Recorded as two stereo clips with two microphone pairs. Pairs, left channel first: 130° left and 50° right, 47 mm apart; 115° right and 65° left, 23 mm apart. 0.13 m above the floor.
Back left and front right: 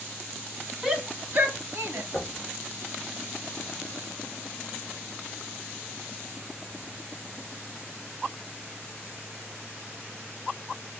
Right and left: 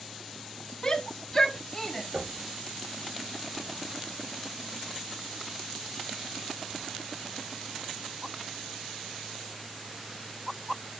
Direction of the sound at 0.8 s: 95° right.